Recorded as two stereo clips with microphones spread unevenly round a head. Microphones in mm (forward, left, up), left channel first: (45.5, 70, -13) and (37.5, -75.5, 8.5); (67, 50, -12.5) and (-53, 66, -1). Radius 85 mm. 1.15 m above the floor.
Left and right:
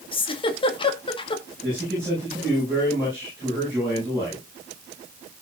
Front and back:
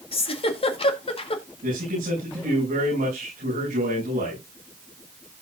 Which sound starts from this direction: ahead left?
A giggle, at 0.1 s.